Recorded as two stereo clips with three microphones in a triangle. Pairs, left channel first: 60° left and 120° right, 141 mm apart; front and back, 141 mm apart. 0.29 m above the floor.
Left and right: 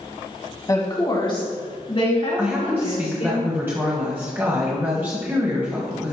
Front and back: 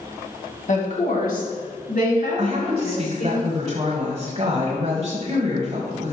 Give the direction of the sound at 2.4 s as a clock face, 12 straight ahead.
6 o'clock.